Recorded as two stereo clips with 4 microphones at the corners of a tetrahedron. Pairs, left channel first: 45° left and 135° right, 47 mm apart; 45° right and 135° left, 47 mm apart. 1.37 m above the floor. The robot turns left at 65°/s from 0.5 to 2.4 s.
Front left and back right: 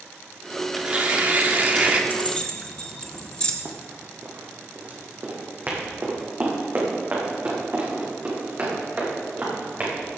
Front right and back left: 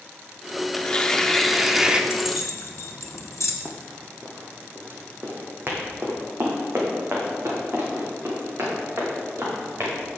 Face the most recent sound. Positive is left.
turn(degrees=170)